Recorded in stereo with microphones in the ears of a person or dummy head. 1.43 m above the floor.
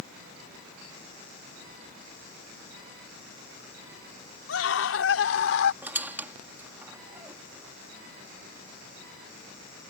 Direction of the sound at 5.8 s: 10° right (ahead or behind).